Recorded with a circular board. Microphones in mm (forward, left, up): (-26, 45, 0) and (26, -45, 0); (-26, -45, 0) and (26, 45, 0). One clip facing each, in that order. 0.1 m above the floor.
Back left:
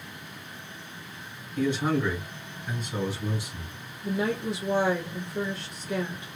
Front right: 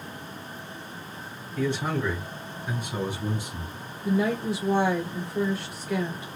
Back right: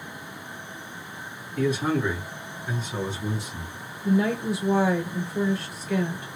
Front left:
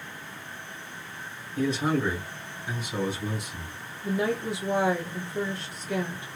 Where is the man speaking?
70° left, 1.7 m; by 3.7 s 45° right, 1.7 m.